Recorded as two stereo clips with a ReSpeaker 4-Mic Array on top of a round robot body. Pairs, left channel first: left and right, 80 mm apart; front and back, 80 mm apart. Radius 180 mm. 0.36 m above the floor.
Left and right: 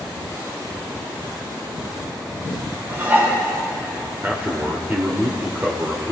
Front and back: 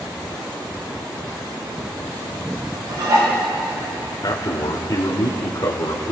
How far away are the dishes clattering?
About 3.5 m.